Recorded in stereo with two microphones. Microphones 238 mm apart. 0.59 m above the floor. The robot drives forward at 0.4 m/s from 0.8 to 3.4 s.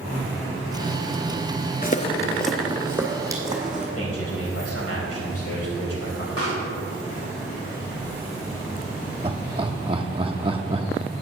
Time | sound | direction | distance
1.8 | footsteps | 35° left (ahead or behind) | 0.6 m
4.0 | a man speaking | 70° left (ahead or behind) | 3.5 m
6.4 | a pop | 65° left (ahead or behind) | 3 m
9.2 | laughter | 20° right (ahead or behind) | 0.8 m